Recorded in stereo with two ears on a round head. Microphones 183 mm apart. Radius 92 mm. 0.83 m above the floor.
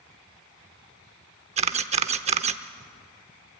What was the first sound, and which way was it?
A camera shutter, 30° right (ahead or behind).